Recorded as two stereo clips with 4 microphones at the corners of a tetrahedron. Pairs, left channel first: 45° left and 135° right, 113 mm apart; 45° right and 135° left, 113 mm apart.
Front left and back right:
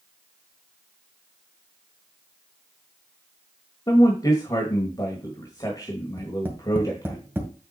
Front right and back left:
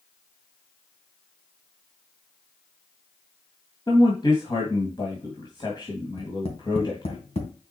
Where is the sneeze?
I don't hear a sneeze.